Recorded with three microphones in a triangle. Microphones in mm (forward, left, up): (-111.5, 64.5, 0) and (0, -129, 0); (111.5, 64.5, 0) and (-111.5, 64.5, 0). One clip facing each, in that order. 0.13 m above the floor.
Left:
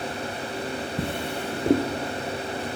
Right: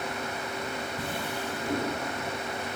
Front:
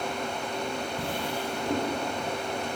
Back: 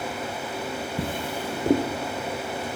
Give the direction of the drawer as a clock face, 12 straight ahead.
7 o'clock.